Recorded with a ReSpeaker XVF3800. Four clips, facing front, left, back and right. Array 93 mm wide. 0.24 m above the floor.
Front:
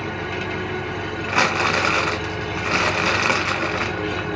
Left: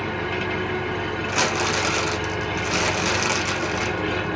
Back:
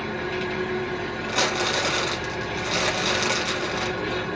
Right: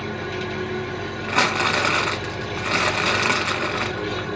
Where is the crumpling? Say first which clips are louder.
Right 4 dB, front 6 dB; 40° right, 0.6 m.